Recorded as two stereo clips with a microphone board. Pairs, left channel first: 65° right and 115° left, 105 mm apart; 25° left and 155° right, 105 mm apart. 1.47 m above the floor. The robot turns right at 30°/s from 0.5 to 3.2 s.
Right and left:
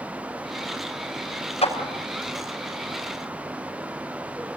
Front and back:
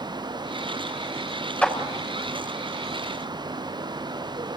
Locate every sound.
1.6 s a clap: 55° right, 5.5 m; by 1.8 s 50° right, 5.5 m